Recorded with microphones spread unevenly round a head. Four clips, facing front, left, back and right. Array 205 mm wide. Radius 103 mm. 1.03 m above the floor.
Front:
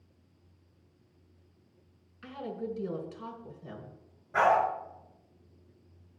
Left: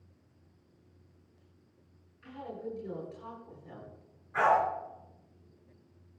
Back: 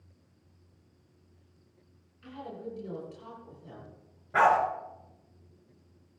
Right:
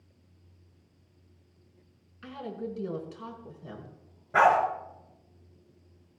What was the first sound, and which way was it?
A woman speaking, 55° right.